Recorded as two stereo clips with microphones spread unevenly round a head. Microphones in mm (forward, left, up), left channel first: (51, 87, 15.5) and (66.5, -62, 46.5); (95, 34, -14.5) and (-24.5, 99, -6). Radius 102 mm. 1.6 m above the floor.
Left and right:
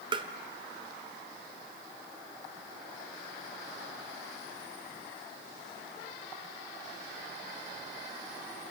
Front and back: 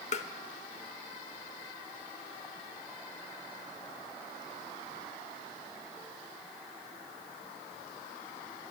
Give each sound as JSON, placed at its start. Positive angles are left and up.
{"t": 0.1, "sound": "tapping", "azimuth_deg": -50, "distance_m": 1.0}